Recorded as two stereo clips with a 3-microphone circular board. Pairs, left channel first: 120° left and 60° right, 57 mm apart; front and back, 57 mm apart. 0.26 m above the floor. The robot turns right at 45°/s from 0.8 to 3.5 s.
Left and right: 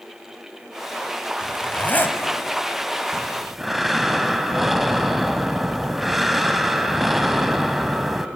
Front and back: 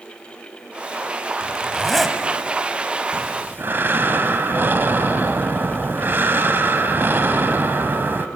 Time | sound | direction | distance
1.4 | a zipper | 65° left | 1.7 m
3.1 | breathing | 165° right | 1.0 m